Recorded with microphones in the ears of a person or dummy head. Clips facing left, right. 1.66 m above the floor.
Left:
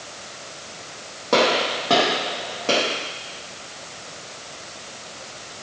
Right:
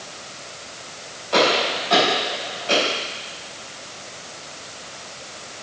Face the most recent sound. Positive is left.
turn(degrees=55)  # may be behind; listen again after turning